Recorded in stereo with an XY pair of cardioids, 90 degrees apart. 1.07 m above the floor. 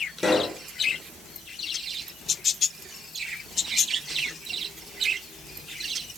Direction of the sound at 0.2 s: 20° left.